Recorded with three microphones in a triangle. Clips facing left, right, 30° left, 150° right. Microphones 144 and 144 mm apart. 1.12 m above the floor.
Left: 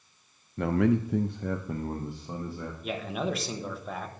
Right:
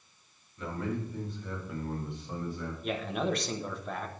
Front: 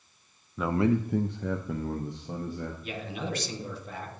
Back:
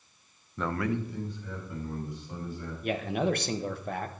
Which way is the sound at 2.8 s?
Straight behind.